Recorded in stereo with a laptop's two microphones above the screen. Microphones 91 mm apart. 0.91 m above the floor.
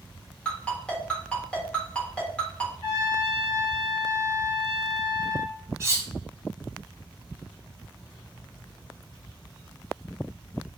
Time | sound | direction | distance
0.5 | a ringtone | 10° left (ahead or behind) | 0.9 m
2.8 | a trumpet | 60° right (ahead or behind) | 1.5 m
5.8 | cutlery clinking | 30° right (ahead or behind) | 0.7 m